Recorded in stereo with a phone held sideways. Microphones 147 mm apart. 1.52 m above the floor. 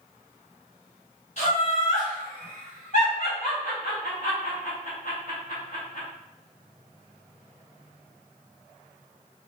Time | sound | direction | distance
1.4 | laughter | 55° left (ahead or behind) | 1.1 m